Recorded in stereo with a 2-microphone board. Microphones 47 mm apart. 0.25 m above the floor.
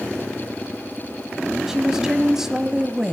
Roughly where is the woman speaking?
Centre.